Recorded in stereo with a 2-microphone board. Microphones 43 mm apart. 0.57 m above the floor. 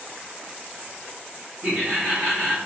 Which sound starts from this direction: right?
Laughter, at 1.6 s.